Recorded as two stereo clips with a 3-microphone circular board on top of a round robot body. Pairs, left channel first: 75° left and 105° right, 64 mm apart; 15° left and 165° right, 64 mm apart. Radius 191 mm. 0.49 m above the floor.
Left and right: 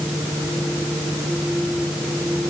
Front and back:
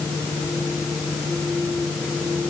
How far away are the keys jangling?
I don't hear keys jangling.